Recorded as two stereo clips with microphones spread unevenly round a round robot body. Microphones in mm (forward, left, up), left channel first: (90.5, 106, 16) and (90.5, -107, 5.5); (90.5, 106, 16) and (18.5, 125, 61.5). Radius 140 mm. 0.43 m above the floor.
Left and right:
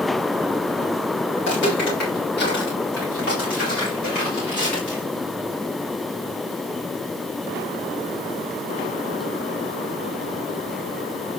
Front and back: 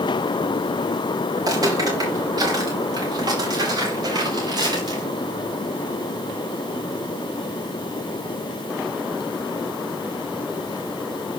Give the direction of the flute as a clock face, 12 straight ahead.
I don't hear a flute.